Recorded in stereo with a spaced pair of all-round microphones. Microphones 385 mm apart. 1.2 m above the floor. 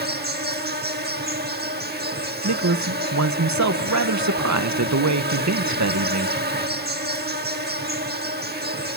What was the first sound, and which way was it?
An insect, 25° right (ahead or behind).